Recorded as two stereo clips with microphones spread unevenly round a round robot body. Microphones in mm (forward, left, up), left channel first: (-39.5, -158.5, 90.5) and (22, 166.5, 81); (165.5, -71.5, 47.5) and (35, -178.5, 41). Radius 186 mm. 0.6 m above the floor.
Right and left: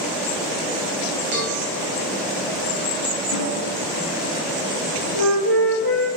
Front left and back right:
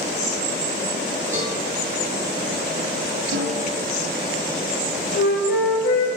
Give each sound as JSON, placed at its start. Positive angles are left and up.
{"t": 1.3, "sound": "a cowbell", "azimuth_deg": 140, "distance_m": 6.0}
{"t": 3.3, "sound": "a snare drum", "azimuth_deg": -155, "distance_m": 4.0}
{"t": 5.2, "sound": "a flute", "azimuth_deg": 70, "distance_m": 4.0}